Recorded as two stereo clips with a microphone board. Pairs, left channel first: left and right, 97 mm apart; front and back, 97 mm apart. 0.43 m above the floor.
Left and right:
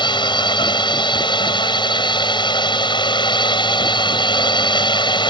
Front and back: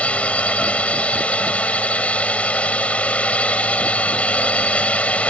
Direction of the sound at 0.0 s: 75° left.